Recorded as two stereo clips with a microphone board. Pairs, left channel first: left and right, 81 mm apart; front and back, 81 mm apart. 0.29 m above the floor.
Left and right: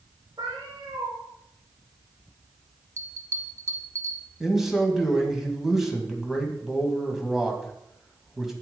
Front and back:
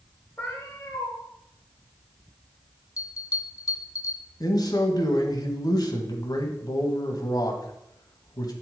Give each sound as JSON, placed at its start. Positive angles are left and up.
{"t": 0.4, "sound": "a cat meowing", "azimuth_deg": -65, "distance_m": 2.5}
{"t": 3.0, "sound": "a bell", "azimuth_deg": -40, "distance_m": 1.0}
{"t": 4.4, "sound": "a man speaking", "azimuth_deg": -5, "distance_m": 1.8}